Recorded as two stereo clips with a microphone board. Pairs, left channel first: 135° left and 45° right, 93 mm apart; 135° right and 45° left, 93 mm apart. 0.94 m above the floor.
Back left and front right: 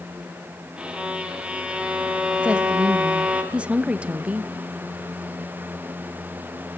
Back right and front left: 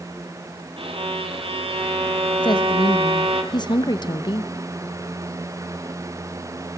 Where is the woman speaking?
120° right, 1.0 m.